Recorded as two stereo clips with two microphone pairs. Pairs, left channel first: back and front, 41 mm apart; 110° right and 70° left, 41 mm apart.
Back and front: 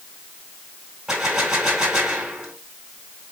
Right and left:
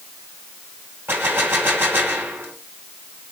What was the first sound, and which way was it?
A gunshot, 75° left.